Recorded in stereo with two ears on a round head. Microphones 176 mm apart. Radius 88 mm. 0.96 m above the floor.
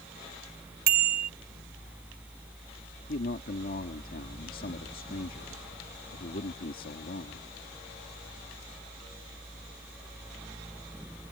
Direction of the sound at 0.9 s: 50° right (ahead or behind).